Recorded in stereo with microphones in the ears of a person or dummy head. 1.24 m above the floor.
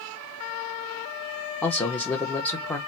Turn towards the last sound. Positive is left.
turn(degrees=10)  # may be behind; listen again after turning